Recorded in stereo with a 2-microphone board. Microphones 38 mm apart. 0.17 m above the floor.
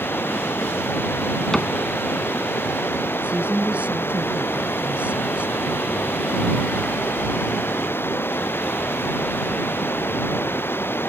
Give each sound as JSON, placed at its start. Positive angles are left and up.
{"t": 0.0, "sound": "running water", "side_deg": 70}
{"t": 1.5, "sound": "a cupboard door", "side_deg": 20}
{"t": 3.2, "sound": "a woman speaking", "side_deg": -35}